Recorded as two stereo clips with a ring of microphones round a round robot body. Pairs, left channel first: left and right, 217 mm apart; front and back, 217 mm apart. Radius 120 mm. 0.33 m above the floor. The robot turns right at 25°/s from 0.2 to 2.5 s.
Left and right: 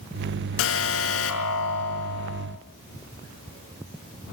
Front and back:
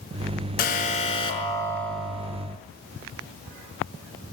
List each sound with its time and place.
0.6 s an alarm: 55° left, 5 m; by 2.5 s 100° left, 5 m